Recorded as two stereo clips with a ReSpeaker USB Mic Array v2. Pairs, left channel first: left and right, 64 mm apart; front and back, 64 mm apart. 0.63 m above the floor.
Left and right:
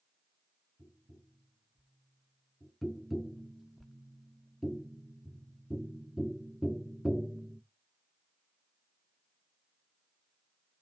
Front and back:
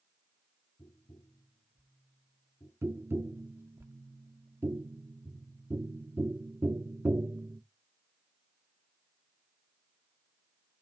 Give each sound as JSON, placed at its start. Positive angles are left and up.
{"t": 0.8, "sound": "tapping", "azimuth_deg": -30, "distance_m": 1.7}
{"t": 2.8, "sound": "tapping", "azimuth_deg": -175, "distance_m": 0.6}